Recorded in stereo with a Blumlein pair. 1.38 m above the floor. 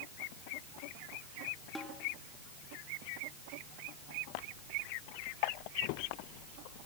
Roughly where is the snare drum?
Ahead.